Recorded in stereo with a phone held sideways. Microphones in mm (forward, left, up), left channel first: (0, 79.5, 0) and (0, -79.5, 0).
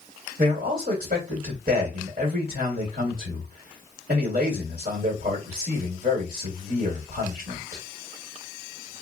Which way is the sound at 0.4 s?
55° right (ahead or behind).